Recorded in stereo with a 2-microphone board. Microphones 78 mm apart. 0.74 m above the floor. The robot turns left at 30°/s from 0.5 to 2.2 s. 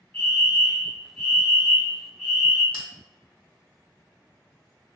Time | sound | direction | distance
0.1 | a fire alarm | 25° left (ahead or behind) | 1.6 m
2.7 | a bell | 85° left | 1.0 m